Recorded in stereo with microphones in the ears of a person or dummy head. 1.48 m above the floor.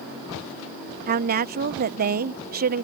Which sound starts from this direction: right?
A woman speaking, at 1.1 s.